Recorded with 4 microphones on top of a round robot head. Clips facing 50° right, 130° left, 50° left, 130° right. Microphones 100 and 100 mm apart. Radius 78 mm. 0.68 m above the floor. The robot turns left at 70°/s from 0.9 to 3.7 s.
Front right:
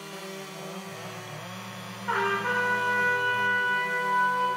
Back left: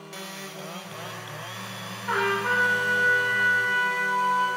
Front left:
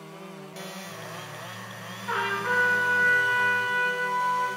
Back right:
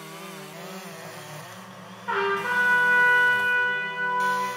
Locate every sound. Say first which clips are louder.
2.1 s a trumpet: back left 2 dB, back right 2 dB; 150° right, 1.1 m; by 4.5 s 95° left, 1.1 m